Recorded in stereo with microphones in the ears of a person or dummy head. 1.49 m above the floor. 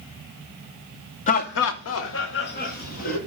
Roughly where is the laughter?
Left.